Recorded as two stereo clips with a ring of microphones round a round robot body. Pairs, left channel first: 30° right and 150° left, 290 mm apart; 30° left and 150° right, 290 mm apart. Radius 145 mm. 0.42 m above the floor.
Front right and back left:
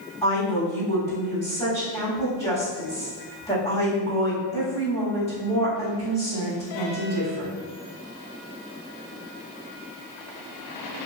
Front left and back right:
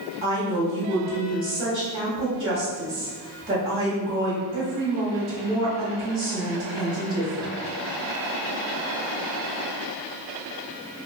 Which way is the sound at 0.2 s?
90° right.